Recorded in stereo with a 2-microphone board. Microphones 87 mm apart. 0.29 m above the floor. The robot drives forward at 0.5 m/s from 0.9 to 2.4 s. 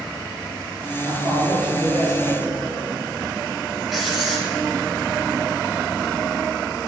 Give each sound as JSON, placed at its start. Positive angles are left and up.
{"t": 1.1, "sound": "a man speaking", "side_deg": -60, "distance_m": 4.5}
{"t": 3.9, "sound": "writing", "side_deg": -5, "distance_m": 3.5}